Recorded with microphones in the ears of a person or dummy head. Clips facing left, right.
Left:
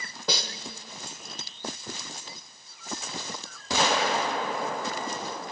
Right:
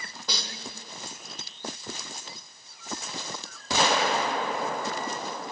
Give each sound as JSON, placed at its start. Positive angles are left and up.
{"t": 0.3, "sound": "a snare drum", "side_deg": 55, "distance_m": 0.9}